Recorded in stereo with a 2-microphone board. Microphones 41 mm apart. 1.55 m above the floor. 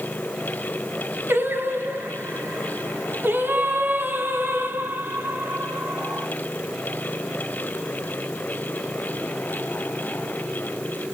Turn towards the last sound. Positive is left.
turn(degrees=-55)  # may be behind; listen again after turning